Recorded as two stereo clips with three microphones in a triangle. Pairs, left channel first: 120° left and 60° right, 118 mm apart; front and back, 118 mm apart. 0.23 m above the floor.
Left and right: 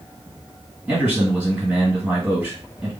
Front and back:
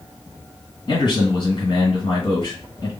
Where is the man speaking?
10° left, 2.0 m.